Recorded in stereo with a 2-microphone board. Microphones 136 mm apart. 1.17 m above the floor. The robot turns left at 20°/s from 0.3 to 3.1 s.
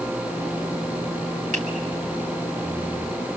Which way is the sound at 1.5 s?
65° right (ahead or behind).